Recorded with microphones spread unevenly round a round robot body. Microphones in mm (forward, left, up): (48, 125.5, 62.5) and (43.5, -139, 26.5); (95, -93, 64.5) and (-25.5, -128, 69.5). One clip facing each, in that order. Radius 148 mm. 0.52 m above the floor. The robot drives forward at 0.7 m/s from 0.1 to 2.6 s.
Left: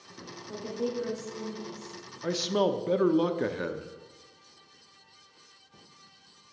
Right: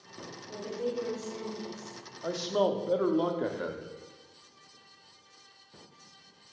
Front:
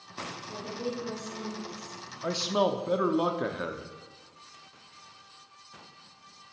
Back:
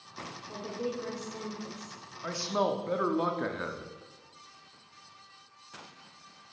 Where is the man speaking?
45° left, 0.7 m; by 3.9 s 80° left, 0.7 m.